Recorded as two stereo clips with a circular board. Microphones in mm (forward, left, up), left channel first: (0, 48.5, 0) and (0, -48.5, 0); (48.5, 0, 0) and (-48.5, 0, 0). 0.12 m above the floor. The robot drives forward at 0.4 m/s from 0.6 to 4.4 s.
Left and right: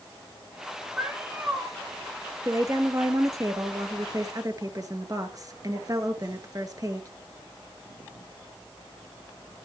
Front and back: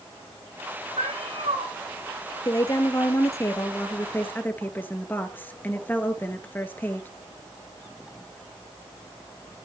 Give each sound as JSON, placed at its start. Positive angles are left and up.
{"t": 1.0, "sound": "a cat meowing", "azimuth_deg": -160, "distance_m": 7.0}
{"t": 2.5, "sound": "a woman speaking", "azimuth_deg": -40, "distance_m": 2.5}